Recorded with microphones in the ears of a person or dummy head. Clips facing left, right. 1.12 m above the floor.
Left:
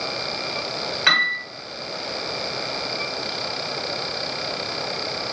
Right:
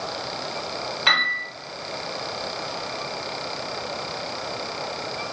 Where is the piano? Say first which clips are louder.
Left 1 dB; 25° left (ahead or behind), 0.8 m.